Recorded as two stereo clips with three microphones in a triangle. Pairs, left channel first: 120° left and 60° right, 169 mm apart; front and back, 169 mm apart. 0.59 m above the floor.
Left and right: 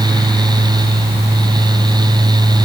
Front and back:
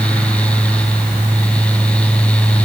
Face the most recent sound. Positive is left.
No sound to turn to.